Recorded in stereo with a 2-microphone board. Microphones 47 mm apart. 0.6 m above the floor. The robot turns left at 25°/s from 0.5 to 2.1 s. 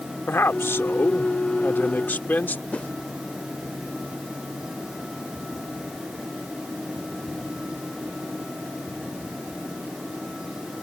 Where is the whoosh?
30° left (ahead or behind).